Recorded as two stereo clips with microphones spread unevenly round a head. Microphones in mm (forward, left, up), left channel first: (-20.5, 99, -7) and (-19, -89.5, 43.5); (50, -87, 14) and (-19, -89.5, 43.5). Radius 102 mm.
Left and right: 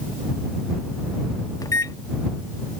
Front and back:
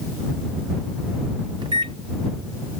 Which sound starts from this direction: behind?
A microwave, at 1.6 s.